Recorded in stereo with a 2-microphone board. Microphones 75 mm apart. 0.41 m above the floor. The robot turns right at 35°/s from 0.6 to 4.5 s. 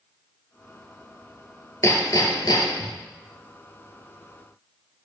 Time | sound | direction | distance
1.8 | hammering | 40° left | 2.0 m